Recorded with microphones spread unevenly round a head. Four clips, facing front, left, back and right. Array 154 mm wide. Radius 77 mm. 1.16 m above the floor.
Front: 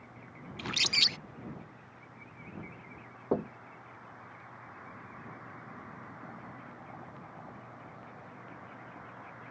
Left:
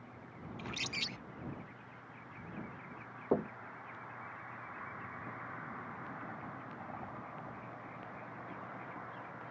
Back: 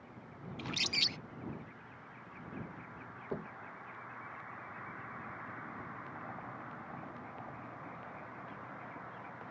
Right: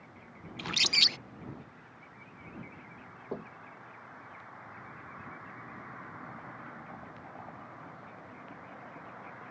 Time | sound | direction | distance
0.6 | a bird | 80° right | ?
3.3 | knocking | 35° left | ?